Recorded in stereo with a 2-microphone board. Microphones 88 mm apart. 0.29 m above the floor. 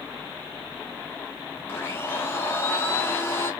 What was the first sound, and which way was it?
A blender, 30° left (ahead or behind).